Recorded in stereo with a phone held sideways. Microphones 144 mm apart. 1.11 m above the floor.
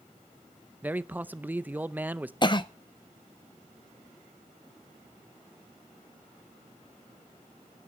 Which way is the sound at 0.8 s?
10° right (ahead or behind).